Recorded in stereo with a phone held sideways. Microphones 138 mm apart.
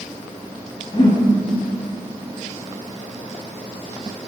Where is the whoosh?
35° left (ahead or behind), 6 m.